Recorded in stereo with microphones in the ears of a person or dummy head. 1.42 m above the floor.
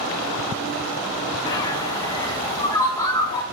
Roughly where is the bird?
Centre.